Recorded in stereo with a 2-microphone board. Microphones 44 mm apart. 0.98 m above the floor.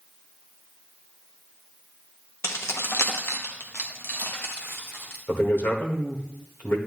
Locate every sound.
2.4 s keys jangling: 75° left (ahead or behind), 0.8 m; by 5.2 s 50° left (ahead or behind), 2.0 m
5.3 s a man speaking: 55° left (ahead or behind), 1.6 m